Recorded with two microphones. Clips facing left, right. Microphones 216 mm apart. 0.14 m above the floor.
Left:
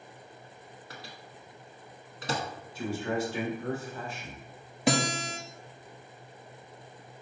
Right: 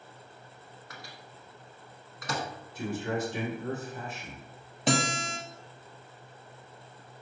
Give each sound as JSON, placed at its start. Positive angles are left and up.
{"t": 0.9, "sound": "a microwave", "side_deg": 30, "distance_m": 1.0}
{"t": 2.8, "sound": "a man speaking", "side_deg": -20, "distance_m": 1.7}
{"t": 4.9, "sound": "a guitar", "side_deg": 10, "distance_m": 1.0}